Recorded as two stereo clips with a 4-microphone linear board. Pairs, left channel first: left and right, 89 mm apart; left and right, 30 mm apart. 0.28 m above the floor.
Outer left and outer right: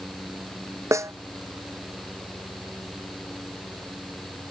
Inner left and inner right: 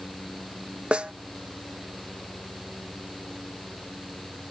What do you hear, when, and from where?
0.9 s a snare drum: 35° right (ahead or behind)